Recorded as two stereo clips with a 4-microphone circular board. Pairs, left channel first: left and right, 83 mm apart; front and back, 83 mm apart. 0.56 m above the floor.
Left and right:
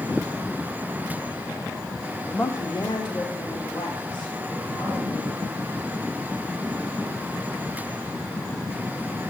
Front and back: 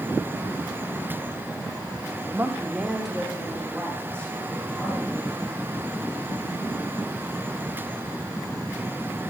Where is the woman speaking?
150° left, 0.8 m; by 5.7 s 65° left, 5 m.